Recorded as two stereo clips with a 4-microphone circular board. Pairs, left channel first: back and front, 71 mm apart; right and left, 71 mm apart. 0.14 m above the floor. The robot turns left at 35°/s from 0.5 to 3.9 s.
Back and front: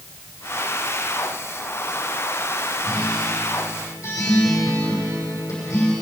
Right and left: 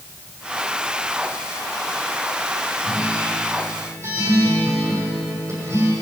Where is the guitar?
175° left, 6.5 m; by 5.9 s 140° left, 6.5 m.